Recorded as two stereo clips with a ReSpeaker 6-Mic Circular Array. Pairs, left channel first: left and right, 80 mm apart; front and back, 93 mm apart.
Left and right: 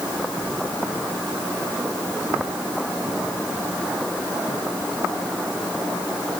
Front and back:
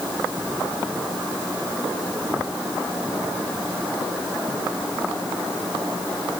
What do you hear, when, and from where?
Only background noise.